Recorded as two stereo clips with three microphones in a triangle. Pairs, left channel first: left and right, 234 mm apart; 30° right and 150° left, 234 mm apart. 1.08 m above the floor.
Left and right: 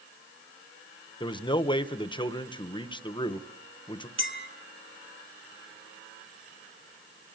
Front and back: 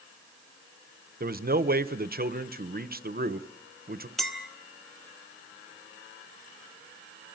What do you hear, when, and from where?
1.2 s a man speaking: 145° left, 0.8 m
4.2 s a clink: 120° right, 1.5 m